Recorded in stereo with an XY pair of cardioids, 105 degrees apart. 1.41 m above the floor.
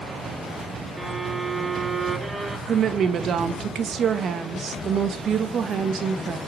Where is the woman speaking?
55° right, 1.4 m.